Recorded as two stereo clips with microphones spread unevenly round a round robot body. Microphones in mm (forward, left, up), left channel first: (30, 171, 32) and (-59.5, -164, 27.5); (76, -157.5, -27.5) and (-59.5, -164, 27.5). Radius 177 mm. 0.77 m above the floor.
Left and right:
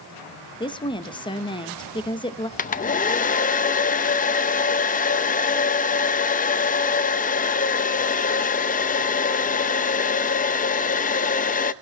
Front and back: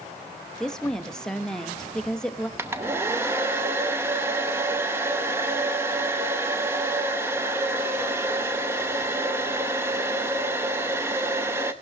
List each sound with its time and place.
0.6 s a woman speaking: 15° left, 0.8 m
2.6 s a hair dryer: 75° left, 0.6 m